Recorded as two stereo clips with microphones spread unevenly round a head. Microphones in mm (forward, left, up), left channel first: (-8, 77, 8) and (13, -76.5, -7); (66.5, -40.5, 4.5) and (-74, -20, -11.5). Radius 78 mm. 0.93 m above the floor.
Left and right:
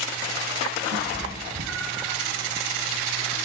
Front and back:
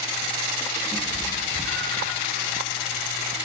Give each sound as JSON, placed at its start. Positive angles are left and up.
{"t": 0.9, "sound": "a cat meowing", "azimuth_deg": -85, "distance_m": 4.5}